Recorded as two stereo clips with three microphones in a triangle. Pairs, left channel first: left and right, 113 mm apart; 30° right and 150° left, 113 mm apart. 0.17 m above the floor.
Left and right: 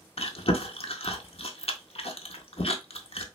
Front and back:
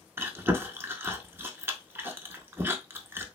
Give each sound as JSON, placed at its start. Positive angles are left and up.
{"t": 0.2, "sound": "chewing", "azimuth_deg": 85, "distance_m": 0.5}